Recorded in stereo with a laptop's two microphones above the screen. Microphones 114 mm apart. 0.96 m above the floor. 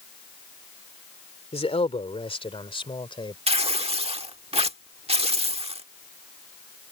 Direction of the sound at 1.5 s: 60° left (ahead or behind).